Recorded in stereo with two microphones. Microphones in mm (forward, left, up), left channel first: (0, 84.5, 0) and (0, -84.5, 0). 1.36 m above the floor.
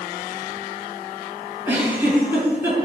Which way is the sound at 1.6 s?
15° right (ahead or behind).